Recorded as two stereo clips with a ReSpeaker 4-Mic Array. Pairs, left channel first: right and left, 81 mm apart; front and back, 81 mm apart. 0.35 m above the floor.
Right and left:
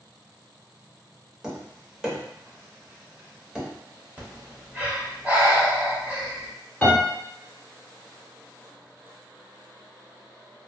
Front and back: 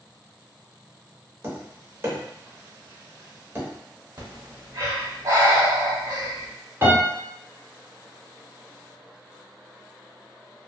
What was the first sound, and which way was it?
Tapping, 165° left.